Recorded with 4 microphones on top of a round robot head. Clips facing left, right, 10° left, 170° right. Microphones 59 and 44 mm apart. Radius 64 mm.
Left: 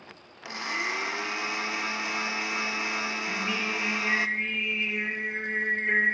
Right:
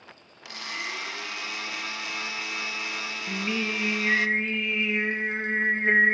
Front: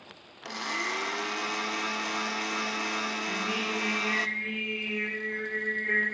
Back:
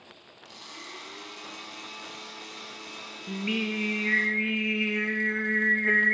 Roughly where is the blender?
Ahead left.